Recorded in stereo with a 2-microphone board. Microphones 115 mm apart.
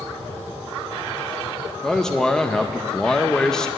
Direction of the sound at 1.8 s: 5° left (ahead or behind).